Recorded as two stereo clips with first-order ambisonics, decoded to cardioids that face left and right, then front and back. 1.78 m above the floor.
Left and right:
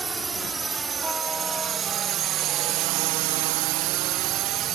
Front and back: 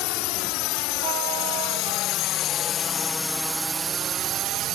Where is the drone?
15° right; by 4.8 s 135° right.